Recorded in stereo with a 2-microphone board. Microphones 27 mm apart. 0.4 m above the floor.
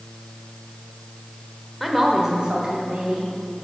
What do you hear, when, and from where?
1.8 s a woman speaking: centre (ahead or behind), 1.0 m; by 3.6 s 60° right (ahead or behind), 3 m